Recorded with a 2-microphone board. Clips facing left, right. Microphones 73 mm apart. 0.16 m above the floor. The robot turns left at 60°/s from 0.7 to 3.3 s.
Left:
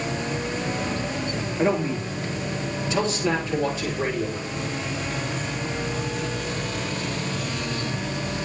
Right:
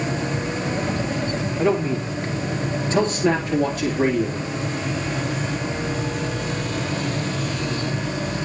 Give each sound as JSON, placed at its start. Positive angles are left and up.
{"t": 1.6, "sound": "a man speaking", "azimuth_deg": 35, "distance_m": 3.0}